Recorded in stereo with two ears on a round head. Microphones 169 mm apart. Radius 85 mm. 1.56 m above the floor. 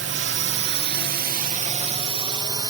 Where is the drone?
65° right (ahead or behind); by 2.7 s 20° right (ahead or behind).